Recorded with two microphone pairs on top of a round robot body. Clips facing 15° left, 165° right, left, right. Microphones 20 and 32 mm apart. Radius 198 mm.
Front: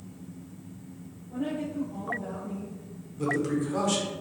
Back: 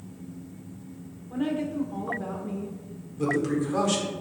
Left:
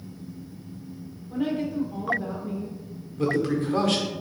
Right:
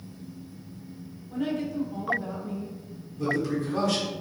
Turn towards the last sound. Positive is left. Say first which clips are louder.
# back 2 dB, left 3 dB
turn(degrees=115)